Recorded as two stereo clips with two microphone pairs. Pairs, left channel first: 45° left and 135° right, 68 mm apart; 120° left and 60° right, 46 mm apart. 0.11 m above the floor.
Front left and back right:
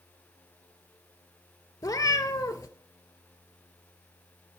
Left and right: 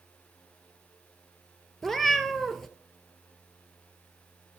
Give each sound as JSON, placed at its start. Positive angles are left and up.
{"t": 1.8, "sound": "a cat meowing", "azimuth_deg": 45, "distance_m": 0.5}